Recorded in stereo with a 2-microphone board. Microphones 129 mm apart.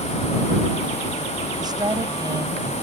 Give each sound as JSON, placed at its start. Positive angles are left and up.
{"t": 1.6, "sound": "a woman speaking", "side_deg": -30}